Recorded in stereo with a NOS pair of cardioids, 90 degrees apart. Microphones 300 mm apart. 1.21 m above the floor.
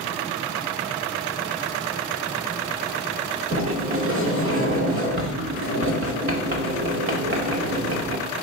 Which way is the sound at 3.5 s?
45° right.